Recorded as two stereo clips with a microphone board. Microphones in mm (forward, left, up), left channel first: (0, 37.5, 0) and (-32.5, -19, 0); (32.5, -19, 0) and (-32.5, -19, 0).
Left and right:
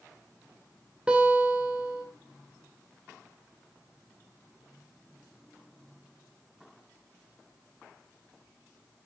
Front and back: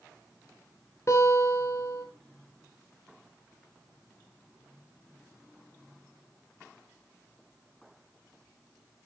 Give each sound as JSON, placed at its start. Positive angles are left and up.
{"t": 1.1, "sound": "a guitar", "azimuth_deg": -45, "distance_m": 6.0}